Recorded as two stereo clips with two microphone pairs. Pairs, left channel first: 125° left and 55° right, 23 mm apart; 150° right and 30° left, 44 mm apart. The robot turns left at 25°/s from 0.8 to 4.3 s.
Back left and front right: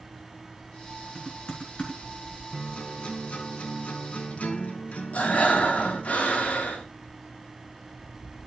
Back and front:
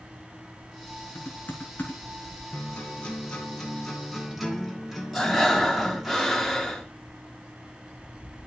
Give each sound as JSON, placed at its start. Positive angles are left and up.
{"t": 1.1, "sound": "typing on a keyboard", "azimuth_deg": 180, "distance_m": 4.0}
{"t": 2.5, "sound": "a guitar", "azimuth_deg": 165, "distance_m": 3.0}
{"t": 5.1, "sound": "breathing", "azimuth_deg": 120, "distance_m": 4.0}